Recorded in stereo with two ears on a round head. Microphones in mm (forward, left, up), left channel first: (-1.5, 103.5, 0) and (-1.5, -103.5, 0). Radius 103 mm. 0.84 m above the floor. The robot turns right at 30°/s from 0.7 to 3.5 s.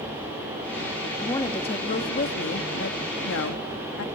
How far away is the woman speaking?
About 1.6 m.